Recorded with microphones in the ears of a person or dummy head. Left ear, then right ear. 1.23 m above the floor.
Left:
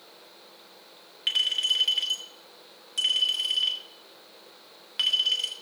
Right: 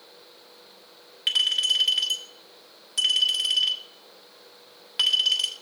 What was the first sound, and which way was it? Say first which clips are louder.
A clink: right 2 dB; 5° right (ahead or behind).